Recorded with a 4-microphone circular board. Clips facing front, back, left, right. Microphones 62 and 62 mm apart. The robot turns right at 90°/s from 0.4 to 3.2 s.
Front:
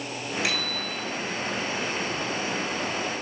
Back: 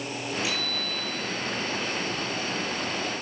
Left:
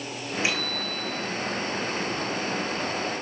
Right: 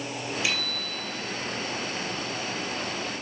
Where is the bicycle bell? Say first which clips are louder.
Front 2 dB, left 2 dB; 25° left, 7.5 m; by 1.3 s 100° left, 7.5 m.